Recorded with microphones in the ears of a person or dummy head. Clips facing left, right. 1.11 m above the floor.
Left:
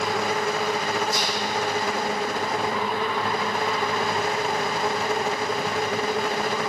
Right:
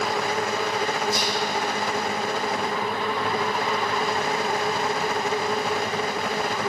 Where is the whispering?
70° left (ahead or behind), 1.7 m.